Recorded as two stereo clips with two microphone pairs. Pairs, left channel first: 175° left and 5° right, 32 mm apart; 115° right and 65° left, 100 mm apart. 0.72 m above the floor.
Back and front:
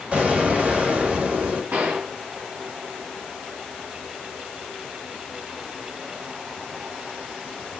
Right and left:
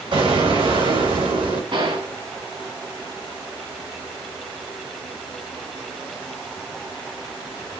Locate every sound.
0.1 s an explosion: 40° left, 3.5 m
1.7 s a gunshot: 35° left, 3 m